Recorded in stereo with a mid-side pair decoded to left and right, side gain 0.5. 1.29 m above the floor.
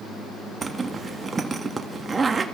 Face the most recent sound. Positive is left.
turn(degrees=-30)